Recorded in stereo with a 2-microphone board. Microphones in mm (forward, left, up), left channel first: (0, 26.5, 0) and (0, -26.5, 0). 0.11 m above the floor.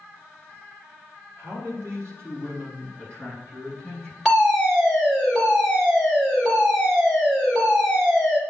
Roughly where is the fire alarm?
Centre.